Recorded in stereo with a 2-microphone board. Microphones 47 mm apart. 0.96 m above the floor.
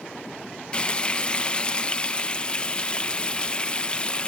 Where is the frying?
25° left (ahead or behind).